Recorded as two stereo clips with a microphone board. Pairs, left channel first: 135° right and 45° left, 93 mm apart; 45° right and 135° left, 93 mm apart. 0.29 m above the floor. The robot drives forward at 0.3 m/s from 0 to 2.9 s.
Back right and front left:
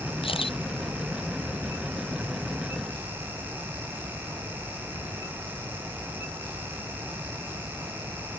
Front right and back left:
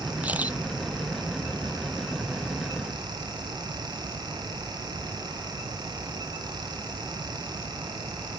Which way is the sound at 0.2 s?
150° right.